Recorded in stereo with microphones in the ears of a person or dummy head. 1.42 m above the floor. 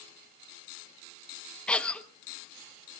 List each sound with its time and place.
1.7 s a cough: 5° left (ahead or behind), 1.2 m